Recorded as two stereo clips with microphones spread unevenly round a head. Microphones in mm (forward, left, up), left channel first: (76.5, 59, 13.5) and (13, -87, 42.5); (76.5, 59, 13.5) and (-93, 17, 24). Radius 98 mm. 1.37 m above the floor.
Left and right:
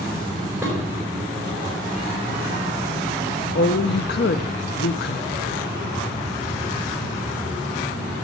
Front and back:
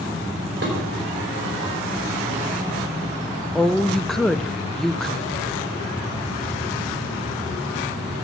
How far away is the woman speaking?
About 0.6 m.